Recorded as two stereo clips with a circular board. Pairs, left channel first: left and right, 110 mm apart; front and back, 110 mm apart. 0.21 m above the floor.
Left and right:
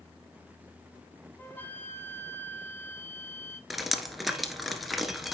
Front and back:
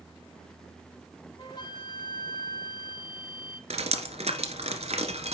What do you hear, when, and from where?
1.4 s a flute: 25° left, 1.2 m
3.7 s dripping: straight behind, 1.6 m